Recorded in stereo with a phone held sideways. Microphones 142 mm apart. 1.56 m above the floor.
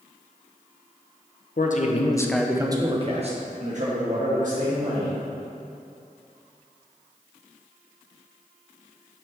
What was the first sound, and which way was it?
A man speaking, 65° left (ahead or behind).